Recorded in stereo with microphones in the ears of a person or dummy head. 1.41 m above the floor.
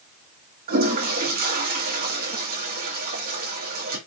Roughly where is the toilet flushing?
Right.